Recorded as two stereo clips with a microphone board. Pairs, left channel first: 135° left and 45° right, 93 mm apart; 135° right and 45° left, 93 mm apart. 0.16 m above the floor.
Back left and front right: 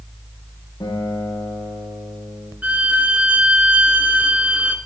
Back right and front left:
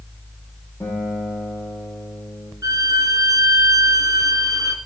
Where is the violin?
20° left, 1.1 m.